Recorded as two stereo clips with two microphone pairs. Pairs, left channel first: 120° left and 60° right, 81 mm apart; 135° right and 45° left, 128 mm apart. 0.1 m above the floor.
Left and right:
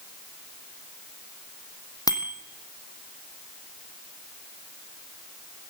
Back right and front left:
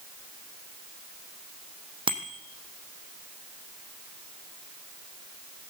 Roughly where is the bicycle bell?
Left.